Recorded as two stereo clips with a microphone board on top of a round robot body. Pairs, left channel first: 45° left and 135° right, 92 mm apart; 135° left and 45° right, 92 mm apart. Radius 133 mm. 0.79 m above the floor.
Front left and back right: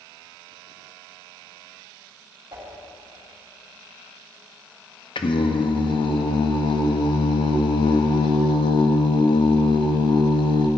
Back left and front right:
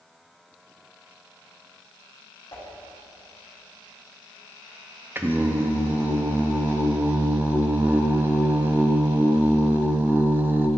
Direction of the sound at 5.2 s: 20° left.